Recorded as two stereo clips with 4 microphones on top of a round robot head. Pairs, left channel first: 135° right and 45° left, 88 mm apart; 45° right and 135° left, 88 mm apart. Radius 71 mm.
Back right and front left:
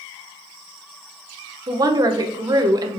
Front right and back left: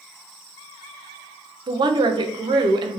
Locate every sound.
1.7 s a woman speaking: 95° left, 0.7 m